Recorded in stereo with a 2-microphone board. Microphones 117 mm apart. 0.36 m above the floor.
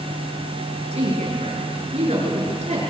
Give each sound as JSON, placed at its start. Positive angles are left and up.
{"t": 0.9, "sound": "a woman speaking", "side_deg": -65, "distance_m": 6.5}